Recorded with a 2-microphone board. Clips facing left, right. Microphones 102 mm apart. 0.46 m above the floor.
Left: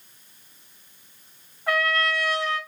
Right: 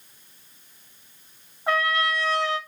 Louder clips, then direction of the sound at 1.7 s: Even; 25° right (ahead or behind).